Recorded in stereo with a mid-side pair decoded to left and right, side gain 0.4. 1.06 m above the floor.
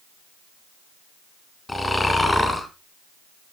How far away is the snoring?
About 4.5 m.